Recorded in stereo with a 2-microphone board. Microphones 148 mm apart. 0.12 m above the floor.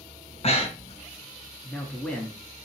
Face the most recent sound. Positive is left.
turn(degrees=10)  # may be behind; listen again after turning